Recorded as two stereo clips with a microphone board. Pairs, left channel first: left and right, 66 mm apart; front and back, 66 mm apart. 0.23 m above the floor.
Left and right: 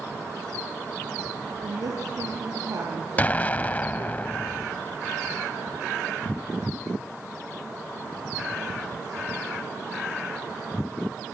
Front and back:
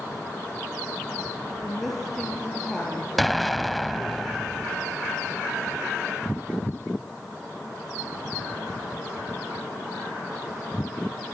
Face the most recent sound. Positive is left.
turn(degrees=90)